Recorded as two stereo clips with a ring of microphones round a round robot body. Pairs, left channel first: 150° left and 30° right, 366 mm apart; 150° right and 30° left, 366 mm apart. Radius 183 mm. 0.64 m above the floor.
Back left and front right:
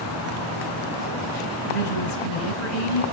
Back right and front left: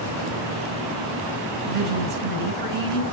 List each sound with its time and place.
1.7 s a woman speaking: 95° left, 6.5 m